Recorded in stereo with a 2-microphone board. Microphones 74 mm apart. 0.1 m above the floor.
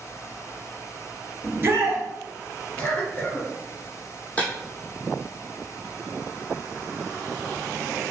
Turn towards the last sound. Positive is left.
turn(degrees=25)  # may be behind; listen again after turning